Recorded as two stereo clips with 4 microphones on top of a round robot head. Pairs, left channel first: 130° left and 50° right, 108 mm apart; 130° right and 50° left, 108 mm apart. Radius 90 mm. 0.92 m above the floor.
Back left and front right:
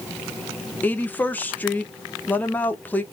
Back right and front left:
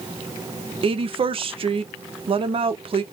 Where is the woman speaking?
60° left, 1.1 m.